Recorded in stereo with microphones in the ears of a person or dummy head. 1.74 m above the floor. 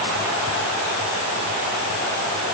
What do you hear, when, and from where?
Only background noise.